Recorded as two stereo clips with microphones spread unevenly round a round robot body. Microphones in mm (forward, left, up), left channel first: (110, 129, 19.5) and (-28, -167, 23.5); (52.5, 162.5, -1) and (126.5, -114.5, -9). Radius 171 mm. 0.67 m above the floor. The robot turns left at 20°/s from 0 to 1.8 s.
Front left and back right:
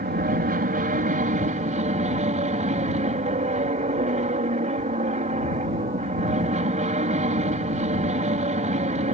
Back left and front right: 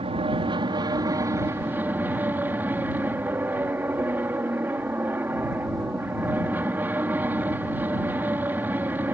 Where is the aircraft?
115° right; by 9.1 s 150° right.